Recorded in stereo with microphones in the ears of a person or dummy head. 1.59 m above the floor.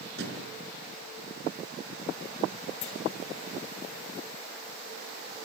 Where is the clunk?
50° left (ahead or behind), 2.5 m.